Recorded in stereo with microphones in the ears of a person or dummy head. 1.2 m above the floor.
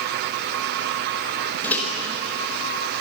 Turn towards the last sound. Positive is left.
turn(degrees=15)  # may be behind; listen again after turning